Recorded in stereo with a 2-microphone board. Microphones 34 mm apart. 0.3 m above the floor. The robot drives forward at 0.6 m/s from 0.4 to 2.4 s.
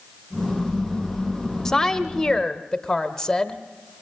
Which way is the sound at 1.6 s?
15° left (ahead or behind).